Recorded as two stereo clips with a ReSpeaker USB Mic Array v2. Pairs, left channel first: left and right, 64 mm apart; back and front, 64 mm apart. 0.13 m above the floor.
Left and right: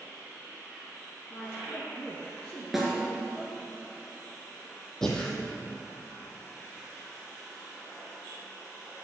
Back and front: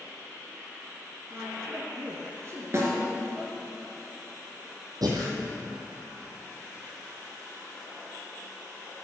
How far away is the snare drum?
About 2.5 m.